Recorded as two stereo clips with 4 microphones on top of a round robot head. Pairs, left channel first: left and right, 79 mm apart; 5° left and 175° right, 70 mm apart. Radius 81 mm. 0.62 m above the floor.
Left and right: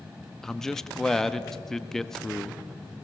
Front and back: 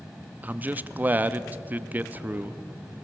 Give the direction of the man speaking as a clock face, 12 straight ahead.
6 o'clock.